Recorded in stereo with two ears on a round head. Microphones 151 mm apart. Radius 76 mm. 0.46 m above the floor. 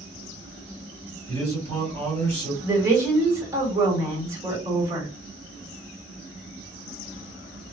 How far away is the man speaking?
About 1.6 m.